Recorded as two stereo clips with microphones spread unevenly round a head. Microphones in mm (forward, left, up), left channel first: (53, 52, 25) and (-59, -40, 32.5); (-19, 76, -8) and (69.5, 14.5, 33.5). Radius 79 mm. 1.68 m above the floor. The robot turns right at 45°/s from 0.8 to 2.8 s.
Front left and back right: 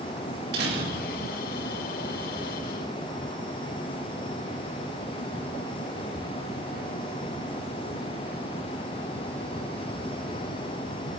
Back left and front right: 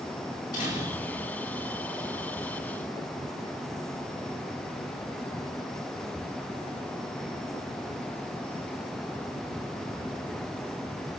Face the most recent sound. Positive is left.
turn(degrees=-60)